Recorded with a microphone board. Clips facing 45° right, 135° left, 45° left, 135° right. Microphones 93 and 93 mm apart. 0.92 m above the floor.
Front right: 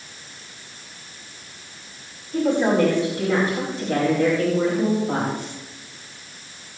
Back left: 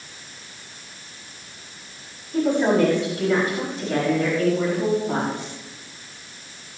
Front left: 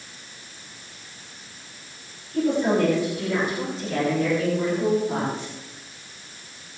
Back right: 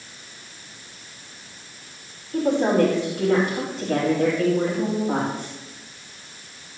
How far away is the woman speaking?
About 5.5 m.